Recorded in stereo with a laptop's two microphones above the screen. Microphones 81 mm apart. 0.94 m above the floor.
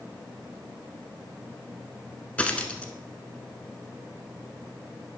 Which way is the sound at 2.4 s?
15° left (ahead or behind).